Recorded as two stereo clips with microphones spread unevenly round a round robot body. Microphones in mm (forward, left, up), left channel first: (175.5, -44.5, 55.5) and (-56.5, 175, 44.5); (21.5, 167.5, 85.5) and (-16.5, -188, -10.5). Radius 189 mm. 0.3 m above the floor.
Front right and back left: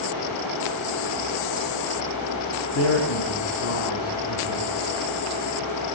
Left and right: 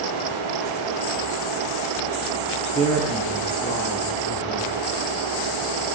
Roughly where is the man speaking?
Ahead.